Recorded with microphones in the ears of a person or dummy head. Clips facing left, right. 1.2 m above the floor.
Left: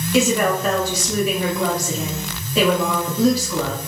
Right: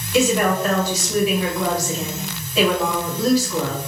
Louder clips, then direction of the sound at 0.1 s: Even; 80° left.